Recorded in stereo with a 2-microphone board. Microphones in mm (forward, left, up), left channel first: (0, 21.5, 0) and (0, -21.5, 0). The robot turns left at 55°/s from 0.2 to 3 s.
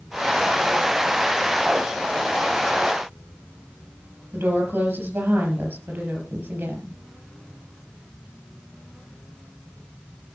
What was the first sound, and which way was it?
A woman speaking, 55° right (ahead or behind).